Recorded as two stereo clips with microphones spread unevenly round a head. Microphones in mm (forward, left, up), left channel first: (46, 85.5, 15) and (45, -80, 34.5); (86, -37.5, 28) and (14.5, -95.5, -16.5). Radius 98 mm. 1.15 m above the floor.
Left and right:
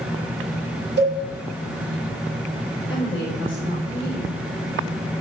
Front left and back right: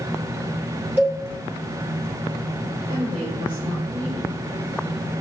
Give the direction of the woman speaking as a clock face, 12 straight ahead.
7 o'clock.